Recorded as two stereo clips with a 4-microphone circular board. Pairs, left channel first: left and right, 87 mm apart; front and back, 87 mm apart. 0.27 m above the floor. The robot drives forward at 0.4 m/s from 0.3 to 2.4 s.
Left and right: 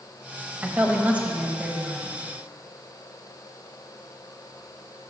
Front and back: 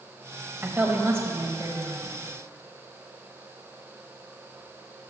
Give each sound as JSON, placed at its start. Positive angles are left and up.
{"t": 0.6, "sound": "a woman speaking", "azimuth_deg": -140, "distance_m": 1.0}